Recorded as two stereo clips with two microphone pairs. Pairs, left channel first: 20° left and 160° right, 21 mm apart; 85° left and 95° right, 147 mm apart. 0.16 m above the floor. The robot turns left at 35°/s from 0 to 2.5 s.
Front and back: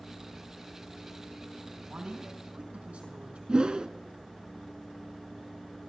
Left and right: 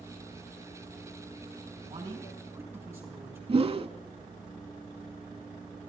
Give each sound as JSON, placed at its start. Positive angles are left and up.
{"t": 1.9, "sound": "a man speaking", "azimuth_deg": -140, "distance_m": 4.5}
{"t": 3.5, "sound": "a whoosh", "azimuth_deg": -130, "distance_m": 0.5}